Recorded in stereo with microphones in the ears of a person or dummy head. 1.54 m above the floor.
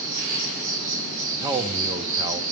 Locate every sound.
0.0 s an insect: 60° right (ahead or behind), 6.5 m
1.4 s a man speaking: 25° right (ahead or behind), 0.8 m